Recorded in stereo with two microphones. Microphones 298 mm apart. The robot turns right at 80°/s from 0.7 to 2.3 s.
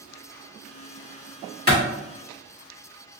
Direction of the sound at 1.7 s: 35° right (ahead or behind).